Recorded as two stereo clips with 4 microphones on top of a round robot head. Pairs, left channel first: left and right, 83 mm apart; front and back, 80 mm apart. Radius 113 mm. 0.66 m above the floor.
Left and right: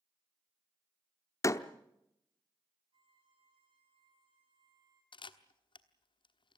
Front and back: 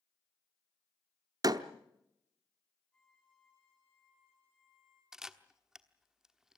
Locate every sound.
1.4 s a door slam: 140° left, 0.9 m
2.9 s a violin: 80° right, 7.5 m
5.1 s a camera shutter: 95° left, 1.2 m